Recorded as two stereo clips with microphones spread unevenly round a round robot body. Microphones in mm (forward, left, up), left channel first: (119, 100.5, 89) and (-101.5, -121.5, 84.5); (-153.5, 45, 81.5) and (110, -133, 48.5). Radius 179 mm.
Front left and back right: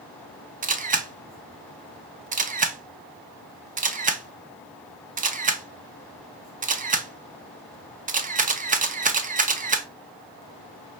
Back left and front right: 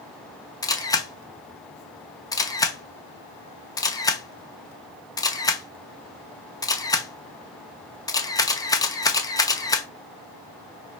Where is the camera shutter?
135° right, 0.6 m.